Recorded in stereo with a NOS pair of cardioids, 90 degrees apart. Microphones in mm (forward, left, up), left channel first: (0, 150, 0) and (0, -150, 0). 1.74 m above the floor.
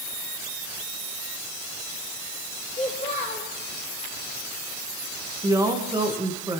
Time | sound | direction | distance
2.7 | a child speaking | 20° left | 5.5 m
5.4 | a woman speaking | 10° right | 2.5 m